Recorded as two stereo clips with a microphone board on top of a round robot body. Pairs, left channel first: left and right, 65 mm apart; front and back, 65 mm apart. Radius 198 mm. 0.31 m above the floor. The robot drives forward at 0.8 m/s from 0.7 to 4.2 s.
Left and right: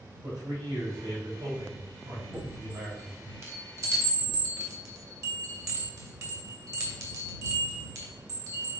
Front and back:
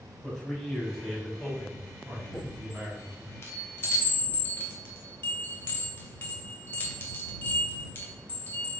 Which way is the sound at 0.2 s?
70° right.